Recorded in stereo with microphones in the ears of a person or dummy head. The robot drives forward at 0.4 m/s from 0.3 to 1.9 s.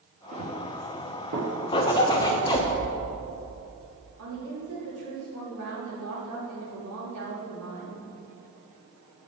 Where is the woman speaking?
85° right, 2.5 m.